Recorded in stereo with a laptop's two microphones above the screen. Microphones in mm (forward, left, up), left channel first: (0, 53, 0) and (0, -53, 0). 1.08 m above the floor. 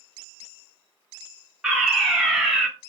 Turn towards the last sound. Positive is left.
turn(degrees=-5)  # may be behind; listen again after turning